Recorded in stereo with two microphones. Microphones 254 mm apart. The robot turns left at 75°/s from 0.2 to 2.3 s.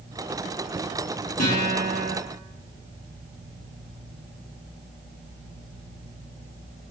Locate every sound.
1.4 s a guitar: 100° left, 1.0 m; by 2.1 s 45° left, 1.0 m